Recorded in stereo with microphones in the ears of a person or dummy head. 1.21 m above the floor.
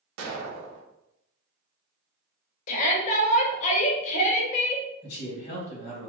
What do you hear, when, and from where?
0.2 s an explosion: 85° right, 0.6 m
2.7 s a shout: 40° left (ahead or behind), 0.8 m
5.0 s a man speaking: 30° left (ahead or behind), 1.1 m